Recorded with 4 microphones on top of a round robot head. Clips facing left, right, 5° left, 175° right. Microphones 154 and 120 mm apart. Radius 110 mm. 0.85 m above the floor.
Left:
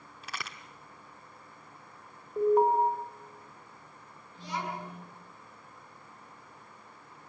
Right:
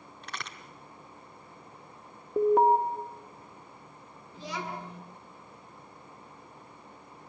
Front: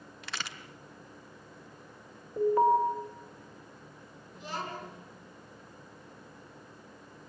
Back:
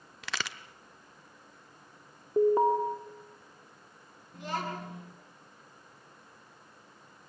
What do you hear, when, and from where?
0.2 s a crack: 175° left, 1.0 m
2.4 s an alarm: 105° right, 1.9 m
4.3 s a child speaking: 120° right, 7 m